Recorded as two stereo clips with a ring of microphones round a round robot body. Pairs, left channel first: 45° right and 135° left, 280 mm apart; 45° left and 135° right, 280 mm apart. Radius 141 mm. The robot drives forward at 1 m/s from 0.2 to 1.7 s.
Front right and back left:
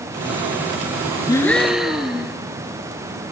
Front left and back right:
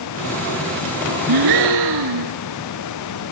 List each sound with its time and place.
1.3 s a gasp: 120° right, 1.1 m; by 2.4 s 135° right, 1.4 m